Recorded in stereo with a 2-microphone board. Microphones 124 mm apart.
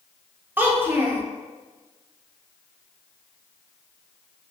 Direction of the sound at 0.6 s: 15° right (ahead or behind).